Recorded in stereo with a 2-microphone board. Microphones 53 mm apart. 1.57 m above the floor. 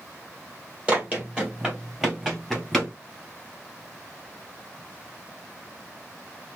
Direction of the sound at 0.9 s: 20° right (ahead or behind).